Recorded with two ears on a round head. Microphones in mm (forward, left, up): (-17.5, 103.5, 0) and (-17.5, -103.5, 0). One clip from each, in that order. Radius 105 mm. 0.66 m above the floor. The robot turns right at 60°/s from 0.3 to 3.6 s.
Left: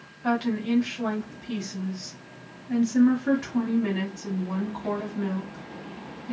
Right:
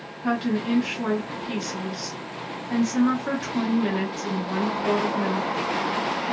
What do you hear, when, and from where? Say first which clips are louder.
0.2 s a woman speaking: right 1 dB; 160° left, 1.5 m; by 6.3 s 5° right, 1.5 m